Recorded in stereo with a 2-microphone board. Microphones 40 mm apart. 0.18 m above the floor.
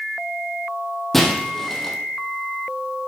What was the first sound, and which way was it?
Breaking glass, 5° left (ahead or behind).